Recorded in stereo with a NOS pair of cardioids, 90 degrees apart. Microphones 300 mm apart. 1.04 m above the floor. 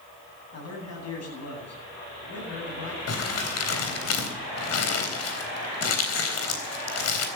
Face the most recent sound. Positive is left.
turn(degrees=55)